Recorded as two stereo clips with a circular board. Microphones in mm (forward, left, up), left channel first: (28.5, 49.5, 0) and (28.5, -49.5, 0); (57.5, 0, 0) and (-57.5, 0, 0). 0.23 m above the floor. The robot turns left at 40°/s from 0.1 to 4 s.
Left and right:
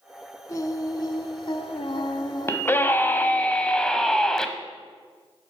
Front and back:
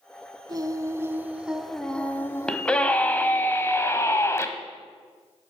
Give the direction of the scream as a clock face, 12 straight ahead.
9 o'clock.